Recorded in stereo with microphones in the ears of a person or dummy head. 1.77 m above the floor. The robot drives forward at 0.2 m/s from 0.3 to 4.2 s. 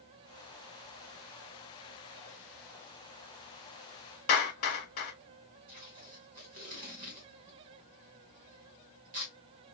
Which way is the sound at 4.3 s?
45° left (ahead or behind).